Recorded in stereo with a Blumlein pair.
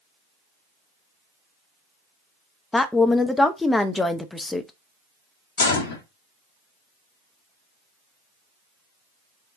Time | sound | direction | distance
2.7 | a woman speaking | 10° left | 0.5 m
5.6 | a gunshot | 60° left | 1.1 m